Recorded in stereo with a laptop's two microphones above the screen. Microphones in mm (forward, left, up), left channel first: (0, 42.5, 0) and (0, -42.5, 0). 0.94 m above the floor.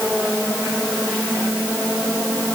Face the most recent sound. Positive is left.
No sound to turn to.